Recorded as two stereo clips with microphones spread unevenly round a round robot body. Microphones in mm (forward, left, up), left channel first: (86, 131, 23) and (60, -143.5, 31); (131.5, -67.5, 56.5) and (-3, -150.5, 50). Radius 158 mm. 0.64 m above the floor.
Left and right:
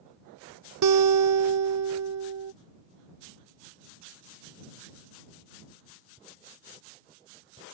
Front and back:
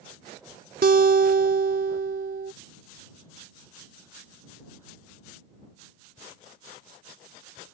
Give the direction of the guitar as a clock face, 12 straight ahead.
4 o'clock.